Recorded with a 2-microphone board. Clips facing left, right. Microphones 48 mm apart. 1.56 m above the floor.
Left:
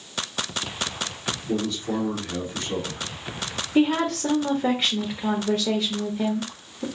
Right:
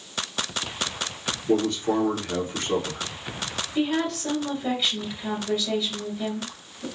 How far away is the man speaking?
About 1.5 m.